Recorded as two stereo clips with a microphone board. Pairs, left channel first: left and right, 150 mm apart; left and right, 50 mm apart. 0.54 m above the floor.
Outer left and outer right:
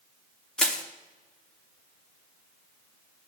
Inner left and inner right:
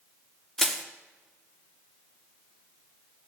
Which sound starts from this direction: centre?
Crushing, at 0.6 s.